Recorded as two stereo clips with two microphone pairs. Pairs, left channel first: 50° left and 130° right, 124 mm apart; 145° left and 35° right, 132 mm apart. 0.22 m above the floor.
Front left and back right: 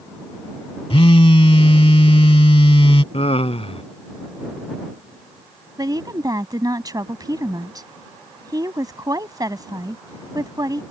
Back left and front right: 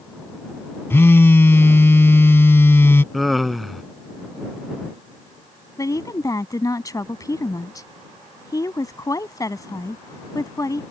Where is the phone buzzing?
80° left.